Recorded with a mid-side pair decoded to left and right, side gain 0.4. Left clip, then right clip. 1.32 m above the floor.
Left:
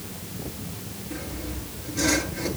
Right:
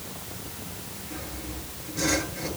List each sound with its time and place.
1.1 s sawing: 35° left, 9.5 m